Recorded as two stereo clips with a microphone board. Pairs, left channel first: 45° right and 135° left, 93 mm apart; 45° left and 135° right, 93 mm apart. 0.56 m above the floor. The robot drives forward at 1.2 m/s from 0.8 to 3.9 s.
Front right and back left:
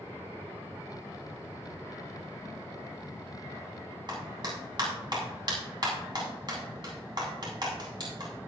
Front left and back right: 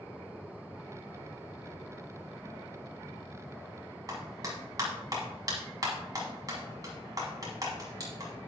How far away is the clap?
About 3.5 m.